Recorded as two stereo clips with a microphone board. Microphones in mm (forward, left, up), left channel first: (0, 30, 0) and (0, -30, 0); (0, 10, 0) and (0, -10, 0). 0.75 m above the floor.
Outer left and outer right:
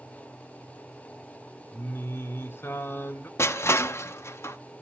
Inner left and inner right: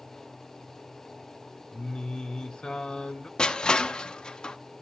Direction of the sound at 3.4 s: 50° left (ahead or behind).